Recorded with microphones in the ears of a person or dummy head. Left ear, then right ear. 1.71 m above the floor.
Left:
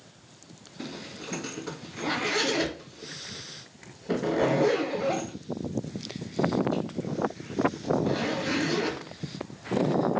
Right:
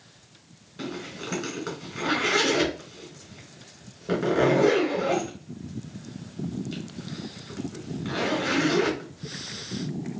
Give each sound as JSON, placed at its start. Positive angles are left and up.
{"t": 0.8, "sound": "a zipper", "side_deg": -50, "distance_m": 3.0}